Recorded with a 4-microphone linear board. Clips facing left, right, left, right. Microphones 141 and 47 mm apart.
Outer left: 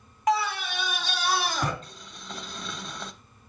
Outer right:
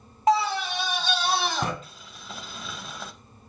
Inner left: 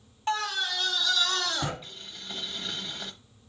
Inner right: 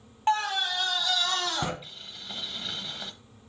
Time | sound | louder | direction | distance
0.3 | a scream | outer right 3 dB, inner right 3 dB | 30° right (ahead or behind) | 1.4 m
1.8 | boiling | outer left 1 dB, even | 5° right (ahead or behind) | 0.7 m